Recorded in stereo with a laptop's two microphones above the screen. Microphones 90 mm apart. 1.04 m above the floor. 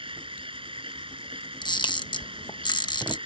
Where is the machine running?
80° right.